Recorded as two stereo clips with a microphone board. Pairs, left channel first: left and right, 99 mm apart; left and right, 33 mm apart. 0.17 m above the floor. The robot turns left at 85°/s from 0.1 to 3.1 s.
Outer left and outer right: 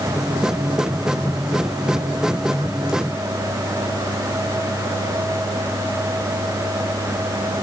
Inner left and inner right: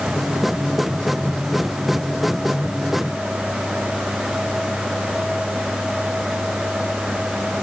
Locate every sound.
Only background noise.